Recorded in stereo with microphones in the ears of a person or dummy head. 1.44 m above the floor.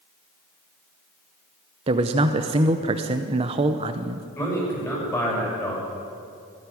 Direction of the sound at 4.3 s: 15° left (ahead or behind).